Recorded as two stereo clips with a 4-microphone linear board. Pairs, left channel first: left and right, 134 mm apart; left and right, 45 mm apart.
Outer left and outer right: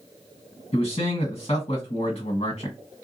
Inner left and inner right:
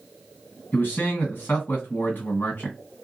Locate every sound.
0.7 s a man speaking: 55° left (ahead or behind), 2.0 m